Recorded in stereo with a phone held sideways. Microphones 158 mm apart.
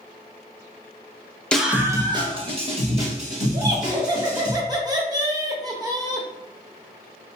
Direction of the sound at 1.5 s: 5° left (ahead or behind).